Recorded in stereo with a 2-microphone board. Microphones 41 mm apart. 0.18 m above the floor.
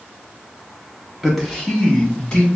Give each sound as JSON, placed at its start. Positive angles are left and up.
{"t": 1.2, "sound": "a man speaking", "side_deg": 5, "distance_m": 1.4}